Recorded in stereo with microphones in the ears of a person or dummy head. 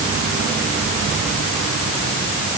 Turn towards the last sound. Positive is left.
No sound to turn to.